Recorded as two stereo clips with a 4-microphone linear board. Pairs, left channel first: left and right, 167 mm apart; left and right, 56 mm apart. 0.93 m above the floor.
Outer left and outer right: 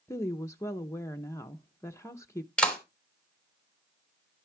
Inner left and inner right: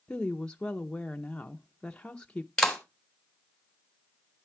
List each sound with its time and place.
0.1 s a woman speaking: 15° left (ahead or behind), 0.6 m
2.6 s a clap: 5° left (ahead or behind), 3 m